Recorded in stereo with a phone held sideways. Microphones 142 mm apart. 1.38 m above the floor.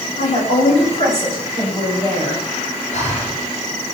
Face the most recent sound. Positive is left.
turn(degrees=60)  # may be behind; listen again after turning